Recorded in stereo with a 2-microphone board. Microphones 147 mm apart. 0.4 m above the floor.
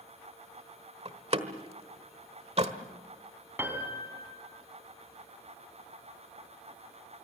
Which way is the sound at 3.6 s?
15° right (ahead or behind).